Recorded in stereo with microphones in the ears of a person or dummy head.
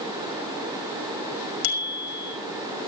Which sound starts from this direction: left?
A bicycle bell, at 1.6 s.